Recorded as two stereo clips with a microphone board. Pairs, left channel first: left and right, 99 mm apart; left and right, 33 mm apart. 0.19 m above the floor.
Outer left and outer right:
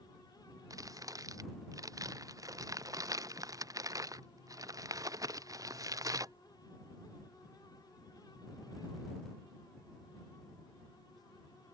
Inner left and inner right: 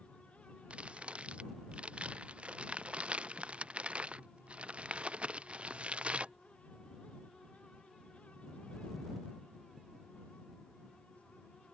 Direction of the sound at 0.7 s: 40° right (ahead or behind).